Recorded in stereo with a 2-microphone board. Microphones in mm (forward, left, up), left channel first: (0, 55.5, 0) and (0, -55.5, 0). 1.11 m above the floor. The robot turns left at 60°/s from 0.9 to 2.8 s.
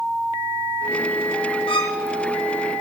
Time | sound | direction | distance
1.7 | a violin | 55° left (ahead or behind) | 2.5 m